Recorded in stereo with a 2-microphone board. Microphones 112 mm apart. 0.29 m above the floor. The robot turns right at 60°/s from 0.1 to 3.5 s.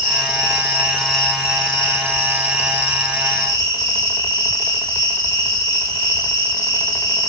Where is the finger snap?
I don't hear a finger snap.